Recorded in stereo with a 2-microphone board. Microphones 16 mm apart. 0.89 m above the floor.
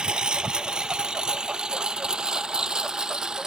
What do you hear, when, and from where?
0.0 s a lawn mower: 70° right (ahead or behind); by 3.5 s 50° right (ahead or behind)